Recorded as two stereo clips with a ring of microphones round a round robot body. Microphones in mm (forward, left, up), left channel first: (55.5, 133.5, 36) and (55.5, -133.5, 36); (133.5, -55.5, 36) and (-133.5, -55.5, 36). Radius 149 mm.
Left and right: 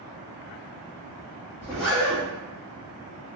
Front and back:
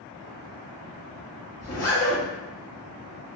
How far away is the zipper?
About 1.5 m.